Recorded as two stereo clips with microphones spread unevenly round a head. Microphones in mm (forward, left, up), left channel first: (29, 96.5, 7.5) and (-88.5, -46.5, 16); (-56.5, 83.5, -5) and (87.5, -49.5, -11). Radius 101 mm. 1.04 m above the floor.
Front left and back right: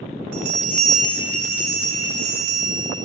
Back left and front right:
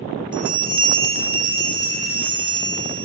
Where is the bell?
110° right, 6 m.